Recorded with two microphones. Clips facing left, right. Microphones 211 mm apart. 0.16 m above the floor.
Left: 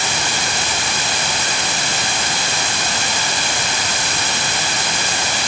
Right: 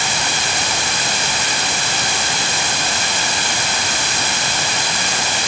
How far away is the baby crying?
No baby crying in this recording.